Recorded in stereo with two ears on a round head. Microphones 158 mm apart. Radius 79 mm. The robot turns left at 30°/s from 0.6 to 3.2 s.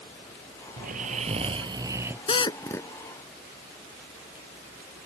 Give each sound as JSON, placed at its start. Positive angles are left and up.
{"t": 0.8, "sound": "snoring", "azimuth_deg": -125}
{"t": 2.3, "sound": "a drill", "side_deg": 30}